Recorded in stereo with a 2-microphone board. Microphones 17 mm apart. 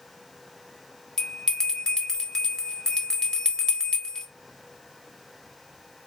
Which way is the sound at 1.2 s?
40° left (ahead or behind).